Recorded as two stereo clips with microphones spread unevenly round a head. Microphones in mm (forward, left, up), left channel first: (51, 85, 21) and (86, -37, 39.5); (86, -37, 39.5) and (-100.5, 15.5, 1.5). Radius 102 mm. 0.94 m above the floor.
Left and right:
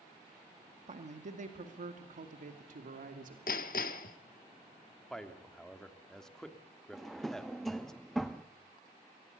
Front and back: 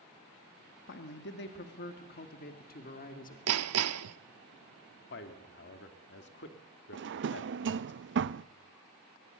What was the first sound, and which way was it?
A man speaking, 45° right.